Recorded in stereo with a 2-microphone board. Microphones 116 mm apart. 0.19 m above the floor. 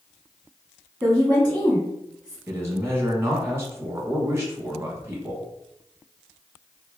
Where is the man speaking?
20° right (ahead or behind), 1.3 m.